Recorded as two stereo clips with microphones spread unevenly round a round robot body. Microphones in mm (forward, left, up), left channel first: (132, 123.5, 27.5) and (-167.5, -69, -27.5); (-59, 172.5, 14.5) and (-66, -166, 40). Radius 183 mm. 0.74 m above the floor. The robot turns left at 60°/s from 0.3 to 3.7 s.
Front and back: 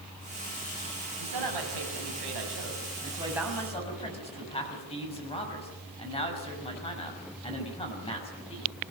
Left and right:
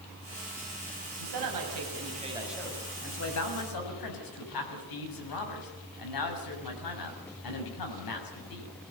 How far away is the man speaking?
About 6 m.